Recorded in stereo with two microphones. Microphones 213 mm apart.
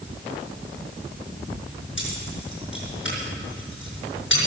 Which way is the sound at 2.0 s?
65° left (ahead or behind).